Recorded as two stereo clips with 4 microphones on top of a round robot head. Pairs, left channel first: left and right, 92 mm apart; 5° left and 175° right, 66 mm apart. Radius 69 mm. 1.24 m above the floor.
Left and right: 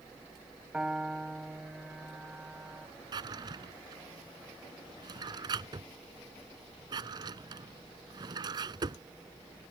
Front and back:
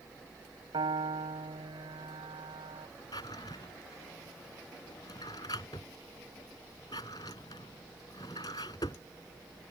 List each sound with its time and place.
0.7 s a piano: 175° right
3.1 s a drawer: 50° right